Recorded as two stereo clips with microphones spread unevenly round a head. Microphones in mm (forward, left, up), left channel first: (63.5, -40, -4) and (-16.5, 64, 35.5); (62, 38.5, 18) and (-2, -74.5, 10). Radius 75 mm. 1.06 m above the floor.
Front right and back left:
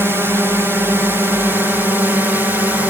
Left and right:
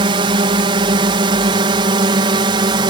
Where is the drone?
145° right; by 2.9 s 140° right.